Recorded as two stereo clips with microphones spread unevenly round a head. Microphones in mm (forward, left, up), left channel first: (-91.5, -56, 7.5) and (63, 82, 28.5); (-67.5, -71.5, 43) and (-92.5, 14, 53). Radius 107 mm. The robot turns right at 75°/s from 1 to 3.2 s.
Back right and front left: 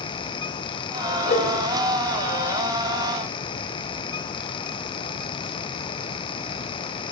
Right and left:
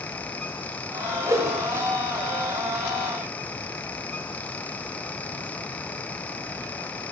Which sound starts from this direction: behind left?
A whoosh, at 1.2 s.